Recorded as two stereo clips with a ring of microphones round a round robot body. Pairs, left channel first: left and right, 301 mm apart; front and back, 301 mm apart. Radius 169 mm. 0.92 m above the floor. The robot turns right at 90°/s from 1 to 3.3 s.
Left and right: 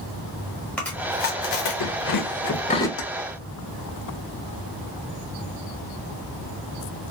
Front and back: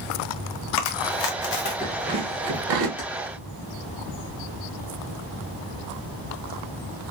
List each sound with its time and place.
0.8 s chewing: 5° left, 0.9 m; by 2.9 s 175° left, 0.9 m
3.0 s keys jangling: 75° left, 1.0 m; by 3.1 s 85° left, 1.0 m